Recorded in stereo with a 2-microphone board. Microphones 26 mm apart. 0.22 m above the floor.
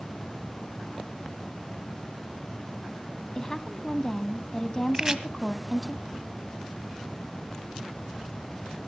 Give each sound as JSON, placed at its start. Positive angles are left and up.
{"t": 3.4, "sound": "a woman speaking", "side_deg": 25, "distance_m": 1.2}
{"t": 4.9, "sound": "chopping", "side_deg": -25, "distance_m": 1.7}